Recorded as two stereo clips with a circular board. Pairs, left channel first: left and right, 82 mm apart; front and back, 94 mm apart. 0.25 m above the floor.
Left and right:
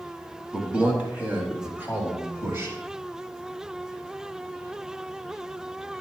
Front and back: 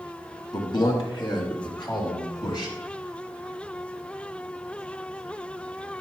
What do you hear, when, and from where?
0.5 s a man speaking: 15° right, 2 m; by 2.7 s 35° right, 4.5 m